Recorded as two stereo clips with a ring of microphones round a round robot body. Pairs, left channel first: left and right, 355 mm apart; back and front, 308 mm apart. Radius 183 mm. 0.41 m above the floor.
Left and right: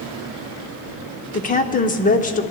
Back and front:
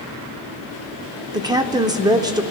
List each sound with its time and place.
1.3 s a woman speaking: 60° left, 0.8 m